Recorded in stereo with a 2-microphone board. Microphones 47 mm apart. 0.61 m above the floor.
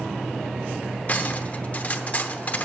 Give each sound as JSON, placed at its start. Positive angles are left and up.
{"t": 1.1, "sound": "cutlery clinking", "side_deg": 35, "distance_m": 0.9}